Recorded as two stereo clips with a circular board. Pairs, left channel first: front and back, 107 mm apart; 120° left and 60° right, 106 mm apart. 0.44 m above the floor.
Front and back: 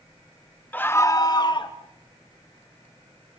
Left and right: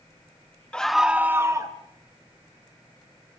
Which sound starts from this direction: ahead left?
A scream, at 0.7 s.